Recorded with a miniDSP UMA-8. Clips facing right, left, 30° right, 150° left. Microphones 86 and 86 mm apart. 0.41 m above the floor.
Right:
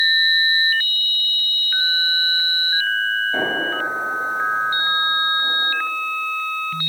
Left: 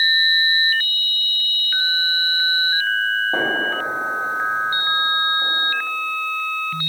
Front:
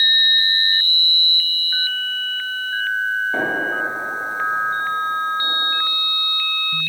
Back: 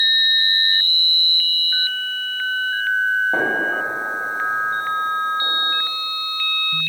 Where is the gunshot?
125° left, 1.9 m.